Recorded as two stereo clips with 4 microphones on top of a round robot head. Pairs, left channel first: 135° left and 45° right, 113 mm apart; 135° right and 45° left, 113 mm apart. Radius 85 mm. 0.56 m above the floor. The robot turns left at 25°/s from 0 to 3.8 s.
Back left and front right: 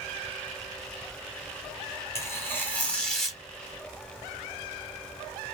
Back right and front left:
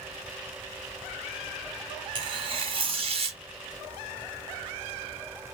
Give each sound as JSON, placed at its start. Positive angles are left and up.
{"t": 2.1, "sound": "tearing paper", "azimuth_deg": 75, "distance_m": 1.7}